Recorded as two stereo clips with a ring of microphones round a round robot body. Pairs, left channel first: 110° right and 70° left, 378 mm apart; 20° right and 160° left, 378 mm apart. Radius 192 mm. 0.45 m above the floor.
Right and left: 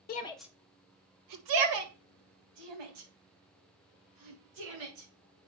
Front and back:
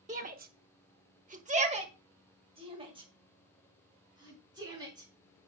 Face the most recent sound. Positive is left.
turn(degrees=80)